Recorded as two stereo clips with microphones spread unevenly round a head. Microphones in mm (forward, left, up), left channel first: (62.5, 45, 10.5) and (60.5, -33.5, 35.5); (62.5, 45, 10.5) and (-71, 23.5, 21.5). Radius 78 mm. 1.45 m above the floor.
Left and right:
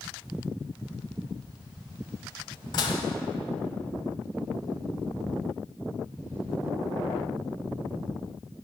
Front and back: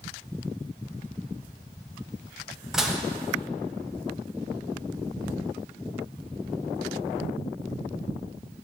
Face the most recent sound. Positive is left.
turn(degrees=115)